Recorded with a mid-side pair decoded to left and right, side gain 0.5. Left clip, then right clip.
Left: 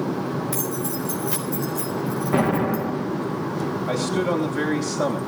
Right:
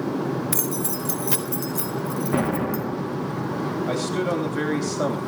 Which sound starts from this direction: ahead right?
Keys jangling, at 0.5 s.